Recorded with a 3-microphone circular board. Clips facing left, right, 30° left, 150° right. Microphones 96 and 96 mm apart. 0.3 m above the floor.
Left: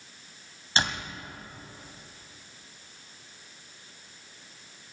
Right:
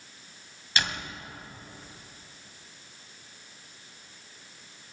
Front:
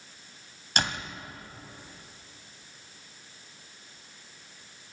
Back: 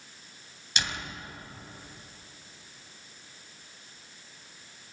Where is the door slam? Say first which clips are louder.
Left 2 dB, front 4 dB; 40° left, 1.6 m.